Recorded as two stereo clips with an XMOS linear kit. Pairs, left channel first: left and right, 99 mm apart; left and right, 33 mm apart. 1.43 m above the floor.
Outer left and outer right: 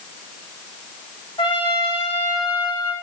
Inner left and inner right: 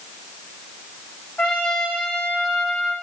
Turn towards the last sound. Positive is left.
turn(degrees=55)  # may be behind; listen again after turning